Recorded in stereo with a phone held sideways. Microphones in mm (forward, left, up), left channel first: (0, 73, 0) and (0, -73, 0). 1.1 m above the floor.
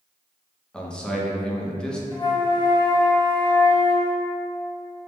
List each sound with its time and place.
0.7 s a man speaking: 5° left (ahead or behind), 0.6 m
2.1 s a flute: 30° left (ahead or behind), 0.7 m